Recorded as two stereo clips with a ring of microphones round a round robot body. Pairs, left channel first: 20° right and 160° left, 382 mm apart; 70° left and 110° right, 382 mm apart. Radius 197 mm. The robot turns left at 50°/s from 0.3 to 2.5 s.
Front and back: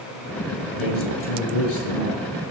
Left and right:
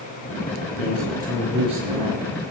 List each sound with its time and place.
0.8 s a man speaking: 10° left, 6 m; by 2.2 s 60° right, 6 m